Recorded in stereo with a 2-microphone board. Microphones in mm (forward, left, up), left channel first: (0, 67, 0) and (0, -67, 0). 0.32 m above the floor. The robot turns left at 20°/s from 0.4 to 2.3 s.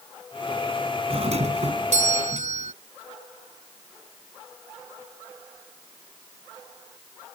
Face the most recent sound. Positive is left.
turn(degrees=-70)  # may be behind; listen again after turning